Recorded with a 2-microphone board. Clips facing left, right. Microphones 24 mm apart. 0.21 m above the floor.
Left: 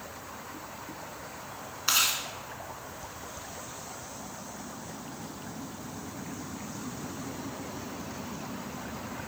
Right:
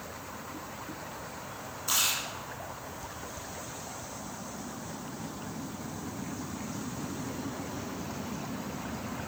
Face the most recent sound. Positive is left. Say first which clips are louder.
# left 3 dB
turn(degrees=50)  # may be behind; listen again after turning